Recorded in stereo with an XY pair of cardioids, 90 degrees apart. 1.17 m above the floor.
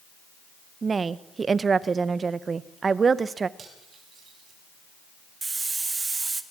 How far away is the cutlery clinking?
About 5.5 m.